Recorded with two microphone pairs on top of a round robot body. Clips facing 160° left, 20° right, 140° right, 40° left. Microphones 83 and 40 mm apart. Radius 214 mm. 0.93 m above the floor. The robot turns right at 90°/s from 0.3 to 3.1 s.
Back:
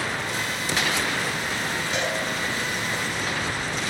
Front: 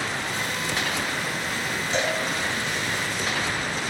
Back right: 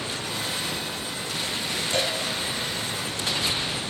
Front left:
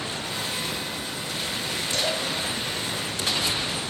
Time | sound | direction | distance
1.9 | a cowbell | 80° right | 5.5 m